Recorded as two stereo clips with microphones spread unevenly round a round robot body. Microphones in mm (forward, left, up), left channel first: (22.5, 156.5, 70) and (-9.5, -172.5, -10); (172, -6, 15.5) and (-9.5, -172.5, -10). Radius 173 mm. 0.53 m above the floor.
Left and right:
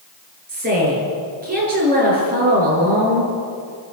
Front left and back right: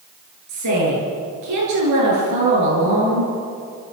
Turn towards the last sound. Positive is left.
turn(degrees=-160)